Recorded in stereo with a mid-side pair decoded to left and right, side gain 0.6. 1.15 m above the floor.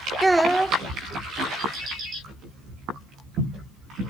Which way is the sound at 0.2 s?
10° right.